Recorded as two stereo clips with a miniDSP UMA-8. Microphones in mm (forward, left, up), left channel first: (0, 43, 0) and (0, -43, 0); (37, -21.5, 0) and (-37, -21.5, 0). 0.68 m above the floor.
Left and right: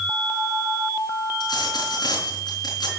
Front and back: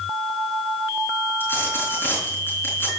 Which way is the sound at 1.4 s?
60° left.